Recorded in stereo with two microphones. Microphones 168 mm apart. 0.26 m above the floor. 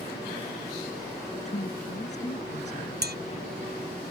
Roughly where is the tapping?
Right.